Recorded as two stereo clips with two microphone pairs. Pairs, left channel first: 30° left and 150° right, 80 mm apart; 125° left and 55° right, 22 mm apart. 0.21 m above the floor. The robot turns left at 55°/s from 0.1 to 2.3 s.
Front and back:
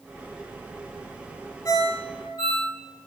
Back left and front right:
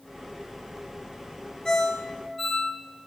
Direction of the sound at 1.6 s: 70° left.